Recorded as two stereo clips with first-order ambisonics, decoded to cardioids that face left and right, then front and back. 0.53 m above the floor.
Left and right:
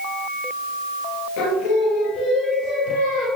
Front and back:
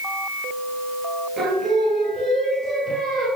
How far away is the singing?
About 3 m.